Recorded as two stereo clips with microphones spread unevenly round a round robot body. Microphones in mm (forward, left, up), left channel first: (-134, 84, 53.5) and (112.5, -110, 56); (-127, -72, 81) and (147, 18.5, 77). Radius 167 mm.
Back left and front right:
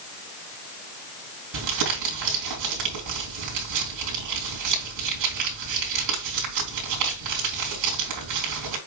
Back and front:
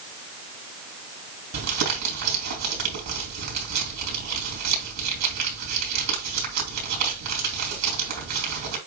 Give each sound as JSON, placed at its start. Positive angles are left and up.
{"t": 1.5, "sound": "crumpling", "azimuth_deg": -10, "distance_m": 3.5}